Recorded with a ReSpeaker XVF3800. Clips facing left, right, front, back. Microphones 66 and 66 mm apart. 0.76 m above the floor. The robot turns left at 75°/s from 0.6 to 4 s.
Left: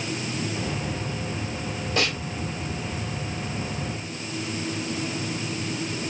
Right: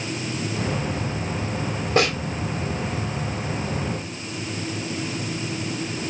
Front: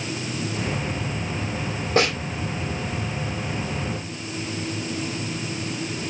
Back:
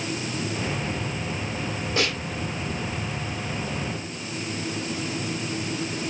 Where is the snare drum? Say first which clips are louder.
Right 6 dB, front 6 dB; 45° right, 1.0 m; by 2.2 s 60° right, 1.0 m.